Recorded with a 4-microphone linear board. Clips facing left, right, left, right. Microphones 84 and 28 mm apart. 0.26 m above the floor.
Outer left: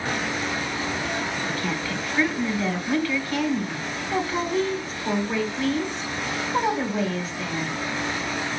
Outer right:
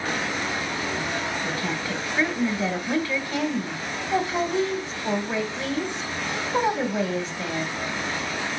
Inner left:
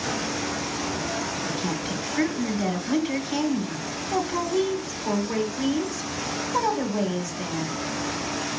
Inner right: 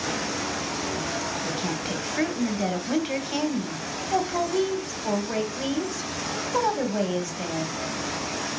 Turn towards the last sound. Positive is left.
turn(degrees=-20)  # may be behind; listen again after turning